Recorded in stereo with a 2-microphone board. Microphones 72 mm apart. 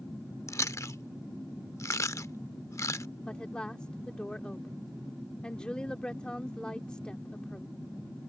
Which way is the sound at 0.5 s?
45° left (ahead or behind).